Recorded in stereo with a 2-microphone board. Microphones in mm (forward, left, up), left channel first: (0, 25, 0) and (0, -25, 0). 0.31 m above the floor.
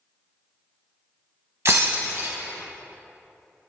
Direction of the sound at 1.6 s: 60° right (ahead or behind).